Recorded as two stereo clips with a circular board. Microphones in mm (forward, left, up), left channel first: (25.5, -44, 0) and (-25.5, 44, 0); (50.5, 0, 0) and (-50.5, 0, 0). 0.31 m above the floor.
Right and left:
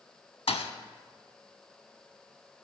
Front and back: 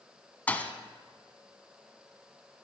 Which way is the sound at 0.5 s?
75° right.